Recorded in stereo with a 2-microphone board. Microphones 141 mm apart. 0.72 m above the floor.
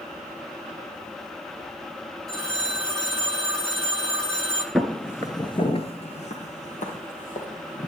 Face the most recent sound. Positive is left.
turn(degrees=70)  # may be behind; listen again after turning